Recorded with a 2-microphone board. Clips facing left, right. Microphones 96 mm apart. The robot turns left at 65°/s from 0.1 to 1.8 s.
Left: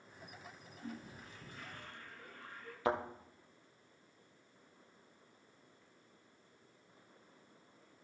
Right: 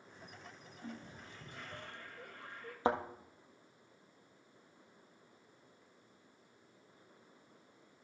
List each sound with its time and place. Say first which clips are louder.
0.8 s a toilet flushing: left 1 dB; 50° right, 2 m; by 2.8 s 115° right, 2 m
2.9 s a thud: right 2 dB; 30° right (ahead or behind), 1.4 m